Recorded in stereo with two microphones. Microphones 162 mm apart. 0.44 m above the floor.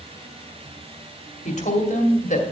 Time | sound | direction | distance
1.4 | a woman speaking | 50° left (ahead or behind) | 2.5 m